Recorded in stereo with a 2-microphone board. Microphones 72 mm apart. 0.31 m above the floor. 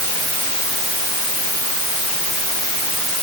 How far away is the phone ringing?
I don't hear a phone ringing.